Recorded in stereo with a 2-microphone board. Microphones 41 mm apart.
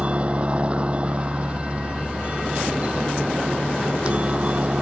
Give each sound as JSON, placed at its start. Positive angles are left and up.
{"t": 0.0, "sound": "a helicopter", "side_deg": -30}